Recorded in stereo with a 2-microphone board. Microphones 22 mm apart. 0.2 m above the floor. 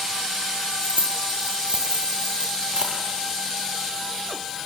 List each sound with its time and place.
0.8 s keys jangling: 65° right (ahead or behind), 3.5 m; by 3.0 s 40° right (ahead or behind), 4.5 m